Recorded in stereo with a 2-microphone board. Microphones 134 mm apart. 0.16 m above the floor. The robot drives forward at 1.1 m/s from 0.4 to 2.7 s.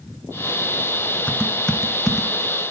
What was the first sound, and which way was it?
Typing on a keyboard, 10° left (ahead or behind).